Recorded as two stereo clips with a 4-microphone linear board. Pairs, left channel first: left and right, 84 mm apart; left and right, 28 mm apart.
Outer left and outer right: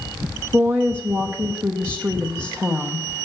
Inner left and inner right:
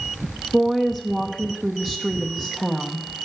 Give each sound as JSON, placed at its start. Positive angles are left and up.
{"t": 0.5, "sound": "a woman speaking", "side_deg": -25, "distance_m": 0.7}